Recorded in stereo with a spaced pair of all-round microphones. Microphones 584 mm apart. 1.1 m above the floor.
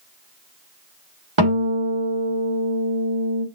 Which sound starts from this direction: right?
A guitar, at 1.4 s.